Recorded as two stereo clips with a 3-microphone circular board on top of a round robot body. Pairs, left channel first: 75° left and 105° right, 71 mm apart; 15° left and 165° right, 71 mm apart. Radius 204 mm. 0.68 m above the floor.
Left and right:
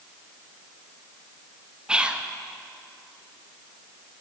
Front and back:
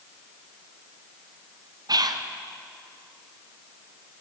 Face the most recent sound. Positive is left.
turn(degrees=180)